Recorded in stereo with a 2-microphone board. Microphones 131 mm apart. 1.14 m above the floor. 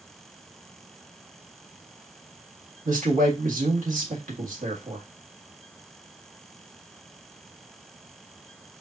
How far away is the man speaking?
About 1.7 m.